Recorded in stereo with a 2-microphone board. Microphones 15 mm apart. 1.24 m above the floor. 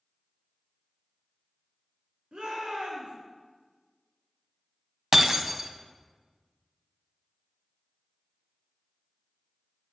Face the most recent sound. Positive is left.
turn(degrees=-20)  # may be behind; listen again after turning